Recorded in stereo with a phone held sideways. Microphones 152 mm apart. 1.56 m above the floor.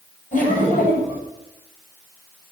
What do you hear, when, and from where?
0.3 s laughter: 60° left (ahead or behind), 9 m